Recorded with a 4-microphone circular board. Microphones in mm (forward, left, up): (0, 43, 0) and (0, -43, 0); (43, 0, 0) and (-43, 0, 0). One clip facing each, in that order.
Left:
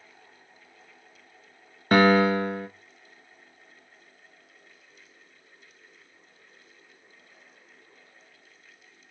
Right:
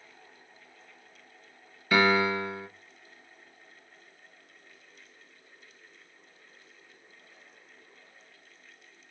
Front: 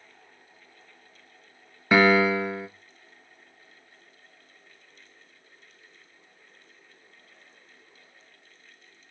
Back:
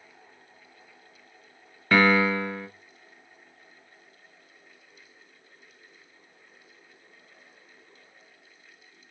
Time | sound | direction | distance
1.9 | a piano | 75° left | 0.7 m